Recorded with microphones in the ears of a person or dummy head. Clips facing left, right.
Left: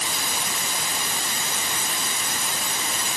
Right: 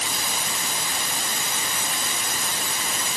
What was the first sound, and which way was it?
Only background noise.